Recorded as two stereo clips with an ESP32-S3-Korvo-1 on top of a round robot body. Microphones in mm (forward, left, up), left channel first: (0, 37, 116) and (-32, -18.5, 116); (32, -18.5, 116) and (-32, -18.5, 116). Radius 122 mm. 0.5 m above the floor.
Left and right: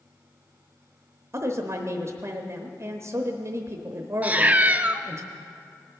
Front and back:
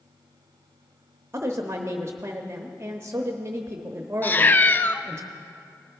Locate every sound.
1.3 s a woman speaking: 145° right, 0.9 m
4.2 s a cat meowing: 60° right, 0.5 m